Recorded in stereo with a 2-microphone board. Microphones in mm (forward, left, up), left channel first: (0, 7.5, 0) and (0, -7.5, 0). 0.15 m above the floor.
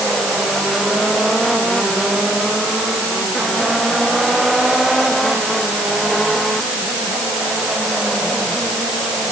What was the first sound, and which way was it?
Only background noise.